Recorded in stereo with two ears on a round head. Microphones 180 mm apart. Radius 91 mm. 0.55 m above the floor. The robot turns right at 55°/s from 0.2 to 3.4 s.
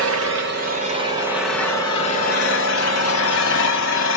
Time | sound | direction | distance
0.0 | an engine running | 70° right | 1.6 m